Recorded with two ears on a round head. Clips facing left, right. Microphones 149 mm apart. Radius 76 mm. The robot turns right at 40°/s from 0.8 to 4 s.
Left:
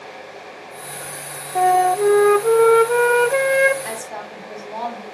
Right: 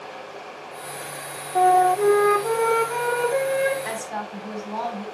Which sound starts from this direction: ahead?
A flute, at 1.6 s.